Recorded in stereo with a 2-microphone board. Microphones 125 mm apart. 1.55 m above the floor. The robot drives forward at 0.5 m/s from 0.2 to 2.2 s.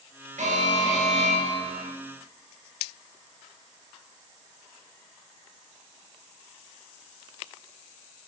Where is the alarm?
75° right (ahead or behind), 6.5 m; by 1.9 s 70° right (ahead or behind), 7 m.